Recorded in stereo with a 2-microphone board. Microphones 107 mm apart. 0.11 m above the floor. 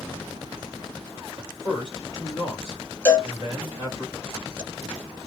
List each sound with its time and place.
1.4 s a man speaking: 40° left (ahead or behind), 2 m
3.0 s a cowbell: 15° left (ahead or behind), 2.5 m